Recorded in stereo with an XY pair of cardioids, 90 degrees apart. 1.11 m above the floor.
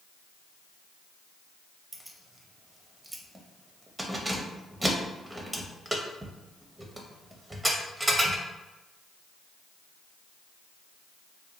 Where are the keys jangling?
15° right, 0.6 m.